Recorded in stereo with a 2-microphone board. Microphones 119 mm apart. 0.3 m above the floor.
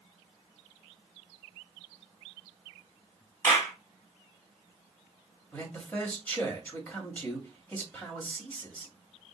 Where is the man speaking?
15° left (ahead or behind), 1.3 m.